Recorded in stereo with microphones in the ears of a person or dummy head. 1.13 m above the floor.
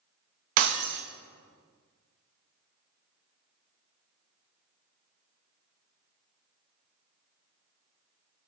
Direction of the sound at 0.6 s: 45° right (ahead or behind).